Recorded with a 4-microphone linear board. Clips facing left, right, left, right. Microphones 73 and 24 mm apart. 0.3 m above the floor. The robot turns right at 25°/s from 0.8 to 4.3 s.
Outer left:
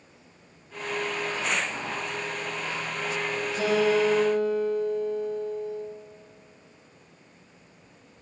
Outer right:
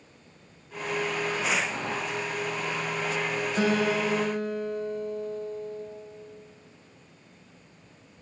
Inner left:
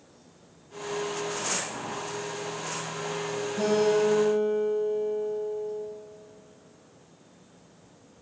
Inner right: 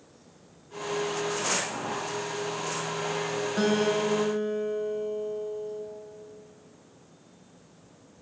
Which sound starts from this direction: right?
A guitar, at 3.6 s.